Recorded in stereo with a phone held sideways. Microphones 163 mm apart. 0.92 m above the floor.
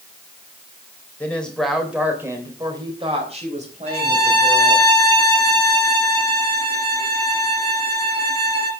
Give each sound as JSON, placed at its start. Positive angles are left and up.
{"t": 1.2, "sound": "a woman speaking", "side_deg": 10, "distance_m": 3.5}
{"t": 3.9, "sound": "a violin", "side_deg": -80, "distance_m": 3.5}